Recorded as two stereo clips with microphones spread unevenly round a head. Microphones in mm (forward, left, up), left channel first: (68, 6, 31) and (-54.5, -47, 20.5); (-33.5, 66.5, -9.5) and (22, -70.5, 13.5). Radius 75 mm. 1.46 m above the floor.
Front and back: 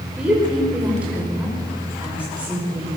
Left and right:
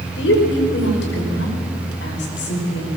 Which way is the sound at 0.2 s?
120° left.